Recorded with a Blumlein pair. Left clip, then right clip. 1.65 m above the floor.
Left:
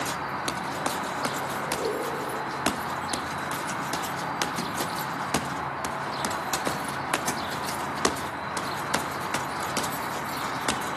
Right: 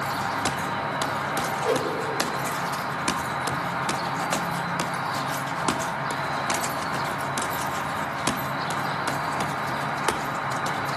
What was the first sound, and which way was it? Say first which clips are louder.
An insect: right 4 dB; 65° right.